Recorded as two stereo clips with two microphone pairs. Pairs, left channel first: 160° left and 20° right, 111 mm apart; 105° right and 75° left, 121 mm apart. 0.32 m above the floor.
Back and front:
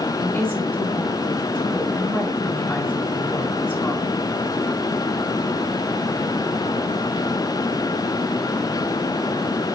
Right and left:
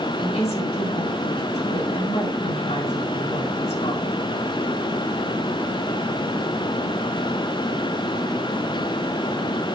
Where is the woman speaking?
130° right, 4.5 m.